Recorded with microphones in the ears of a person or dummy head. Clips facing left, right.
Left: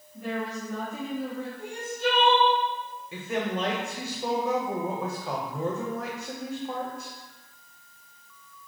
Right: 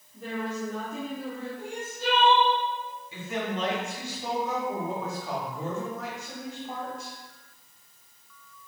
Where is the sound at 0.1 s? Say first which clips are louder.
Even; 80° right, 1.9 m.